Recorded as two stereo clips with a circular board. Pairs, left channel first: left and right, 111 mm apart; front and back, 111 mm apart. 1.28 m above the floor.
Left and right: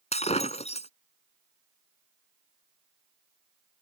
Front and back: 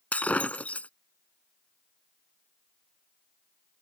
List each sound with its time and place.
0.1 s breaking glass: 75° left